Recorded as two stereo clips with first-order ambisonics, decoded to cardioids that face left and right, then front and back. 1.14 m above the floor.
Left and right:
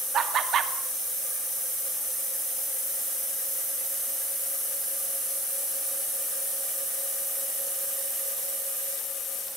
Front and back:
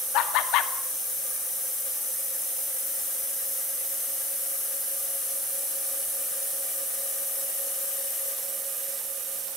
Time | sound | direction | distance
0.1 | laughter | 30° right | 2.5 m